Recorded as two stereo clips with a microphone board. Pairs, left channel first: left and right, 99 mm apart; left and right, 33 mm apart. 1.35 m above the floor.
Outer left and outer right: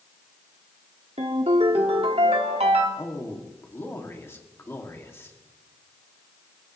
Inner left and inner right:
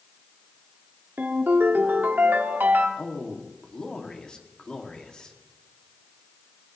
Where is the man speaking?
25° left (ahead or behind), 2.5 m.